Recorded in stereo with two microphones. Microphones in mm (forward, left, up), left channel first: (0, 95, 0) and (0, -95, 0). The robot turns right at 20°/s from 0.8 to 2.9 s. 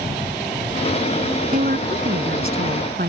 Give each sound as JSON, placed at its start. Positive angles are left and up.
{"t": 1.5, "sound": "a woman speaking", "side_deg": -50}